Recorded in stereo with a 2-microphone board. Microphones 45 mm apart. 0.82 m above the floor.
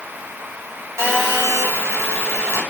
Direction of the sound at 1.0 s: 70° right (ahead or behind).